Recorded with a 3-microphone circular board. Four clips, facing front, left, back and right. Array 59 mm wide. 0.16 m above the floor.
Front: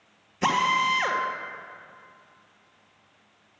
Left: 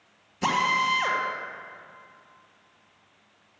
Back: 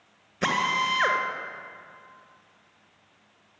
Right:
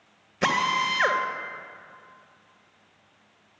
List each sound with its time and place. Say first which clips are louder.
0.4 s a drill: even, front 2 dB; 120° right, 1.9 m